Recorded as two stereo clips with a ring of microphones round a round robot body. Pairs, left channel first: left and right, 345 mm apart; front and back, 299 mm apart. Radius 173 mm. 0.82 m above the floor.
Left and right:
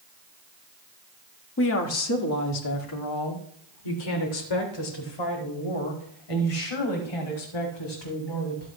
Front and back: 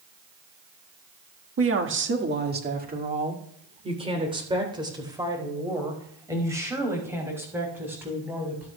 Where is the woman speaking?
145° left, 1.6 m; by 8.7 s 95° left, 7 m.